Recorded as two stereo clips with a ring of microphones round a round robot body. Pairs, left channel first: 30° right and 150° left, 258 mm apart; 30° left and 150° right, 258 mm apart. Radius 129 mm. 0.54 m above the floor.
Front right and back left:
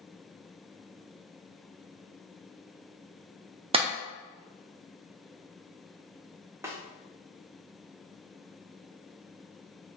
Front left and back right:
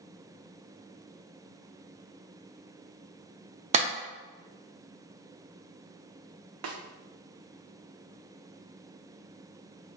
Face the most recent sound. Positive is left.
turn(degrees=-130)